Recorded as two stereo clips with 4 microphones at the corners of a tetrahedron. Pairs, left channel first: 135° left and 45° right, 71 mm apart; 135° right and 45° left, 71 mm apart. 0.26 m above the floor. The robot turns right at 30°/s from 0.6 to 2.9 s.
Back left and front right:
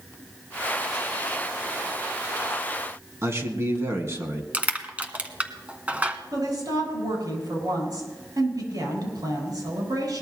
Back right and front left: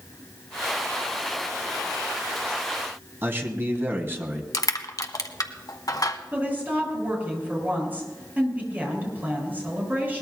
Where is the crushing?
115° right, 1.2 m.